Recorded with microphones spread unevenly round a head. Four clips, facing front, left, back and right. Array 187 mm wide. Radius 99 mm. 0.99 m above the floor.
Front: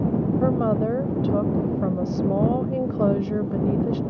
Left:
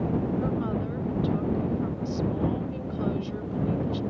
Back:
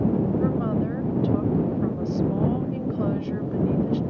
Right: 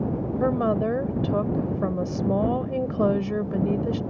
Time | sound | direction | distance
0.4 | a woman speaking | 40° right | ?